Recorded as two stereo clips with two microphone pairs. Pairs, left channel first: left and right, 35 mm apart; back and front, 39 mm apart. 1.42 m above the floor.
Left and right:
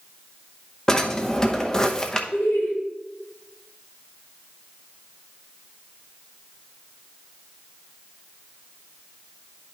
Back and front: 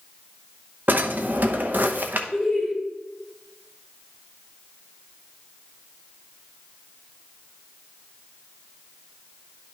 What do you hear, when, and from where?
0.9 s a drawer: 20° left, 0.8 m
2.3 s laughter: 100° left, 2.5 m